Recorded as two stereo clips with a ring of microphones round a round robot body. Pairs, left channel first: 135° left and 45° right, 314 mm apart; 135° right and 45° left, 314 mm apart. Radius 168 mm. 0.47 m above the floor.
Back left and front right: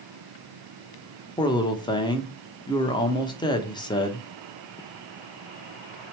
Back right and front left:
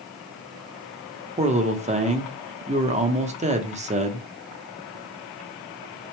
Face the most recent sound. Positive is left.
turn(degrees=80)